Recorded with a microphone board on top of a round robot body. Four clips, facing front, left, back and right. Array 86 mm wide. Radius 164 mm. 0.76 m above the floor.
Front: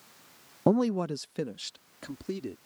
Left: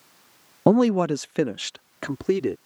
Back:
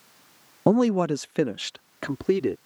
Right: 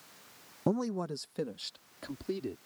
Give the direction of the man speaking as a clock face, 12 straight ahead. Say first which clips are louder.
Left 14 dB, back 5 dB; 9 o'clock.